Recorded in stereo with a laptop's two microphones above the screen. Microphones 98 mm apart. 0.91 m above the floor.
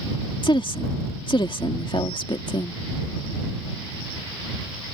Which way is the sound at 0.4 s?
55° left (ahead or behind).